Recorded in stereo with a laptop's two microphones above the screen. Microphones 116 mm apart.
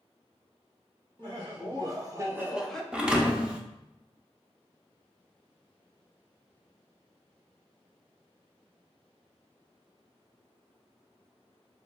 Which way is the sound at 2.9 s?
10° right (ahead or behind).